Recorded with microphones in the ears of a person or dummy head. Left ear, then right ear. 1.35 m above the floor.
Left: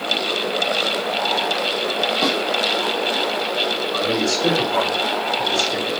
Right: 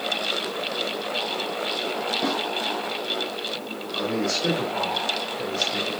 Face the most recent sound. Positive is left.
turn(degrees=75)  # may be behind; listen again after turning